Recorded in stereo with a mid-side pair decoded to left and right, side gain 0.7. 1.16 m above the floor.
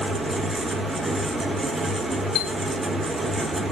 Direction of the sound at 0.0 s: 5° right.